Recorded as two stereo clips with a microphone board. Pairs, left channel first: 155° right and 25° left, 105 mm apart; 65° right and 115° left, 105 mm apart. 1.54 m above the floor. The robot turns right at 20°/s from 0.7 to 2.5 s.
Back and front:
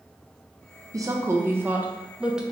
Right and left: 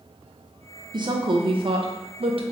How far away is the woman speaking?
About 0.7 m.